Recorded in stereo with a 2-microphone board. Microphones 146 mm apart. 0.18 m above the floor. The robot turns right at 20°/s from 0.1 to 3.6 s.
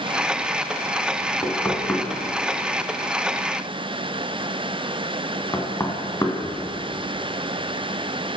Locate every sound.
1.4 s knocking: 5° left (ahead or behind), 1.3 m; by 6.8 s 20° left (ahead or behind), 1.3 m